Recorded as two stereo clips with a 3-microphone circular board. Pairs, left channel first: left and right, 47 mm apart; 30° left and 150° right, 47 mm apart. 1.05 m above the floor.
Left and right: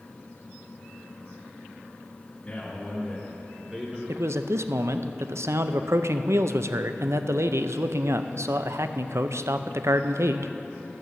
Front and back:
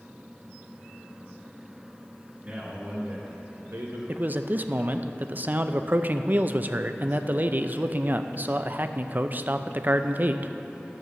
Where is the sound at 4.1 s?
100° right, 0.5 m.